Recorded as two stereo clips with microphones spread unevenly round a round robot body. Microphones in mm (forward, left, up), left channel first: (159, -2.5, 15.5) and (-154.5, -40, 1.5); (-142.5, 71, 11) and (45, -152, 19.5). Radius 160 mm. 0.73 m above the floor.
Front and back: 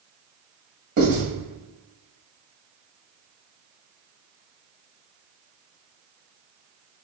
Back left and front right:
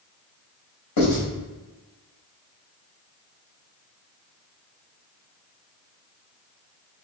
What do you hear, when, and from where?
1.0 s writing: 125° left, 1.7 m